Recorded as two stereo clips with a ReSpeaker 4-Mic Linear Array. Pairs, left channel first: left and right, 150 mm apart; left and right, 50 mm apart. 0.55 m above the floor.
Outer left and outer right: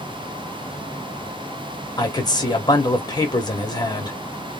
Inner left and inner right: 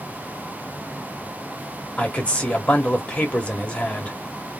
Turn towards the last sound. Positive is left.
turn(degrees=25)  # may be behind; listen again after turning